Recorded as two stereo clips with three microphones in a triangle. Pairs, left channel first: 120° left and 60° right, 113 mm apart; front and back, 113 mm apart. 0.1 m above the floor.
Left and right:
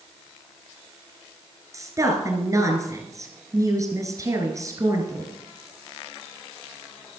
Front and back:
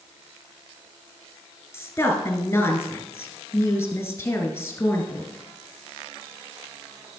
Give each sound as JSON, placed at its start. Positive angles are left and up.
{"t": 1.7, "sound": "a woman speaking", "azimuth_deg": -45, "distance_m": 1.8}